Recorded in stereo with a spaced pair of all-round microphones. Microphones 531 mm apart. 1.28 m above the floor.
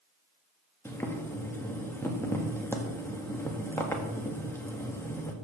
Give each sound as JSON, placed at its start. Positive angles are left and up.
{"t": 0.8, "sound": "boiling", "side_deg": 5, "distance_m": 1.5}